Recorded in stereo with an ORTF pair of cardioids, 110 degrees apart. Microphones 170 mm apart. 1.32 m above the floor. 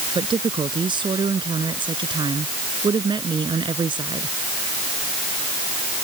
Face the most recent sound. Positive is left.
turn(degrees=-30)